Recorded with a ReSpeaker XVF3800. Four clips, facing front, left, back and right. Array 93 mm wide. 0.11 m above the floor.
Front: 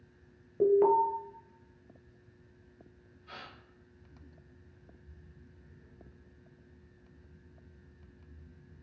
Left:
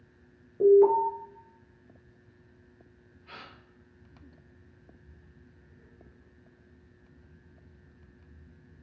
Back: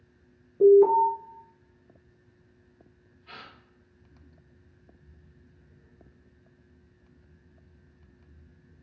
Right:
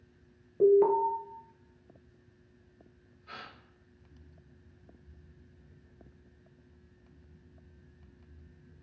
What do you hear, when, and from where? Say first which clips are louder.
0.6 s an alarm: left 3 dB, back 7 dB; 20° right, 1.3 m
3.3 s a gasp: right 1 dB, back 2 dB; 150° left, 1.9 m